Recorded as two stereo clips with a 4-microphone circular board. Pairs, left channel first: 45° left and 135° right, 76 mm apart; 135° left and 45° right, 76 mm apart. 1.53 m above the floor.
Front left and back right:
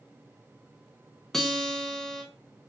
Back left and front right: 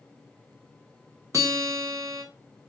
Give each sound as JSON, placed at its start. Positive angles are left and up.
{"t": 1.3, "sound": "a guitar", "azimuth_deg": -35, "distance_m": 1.0}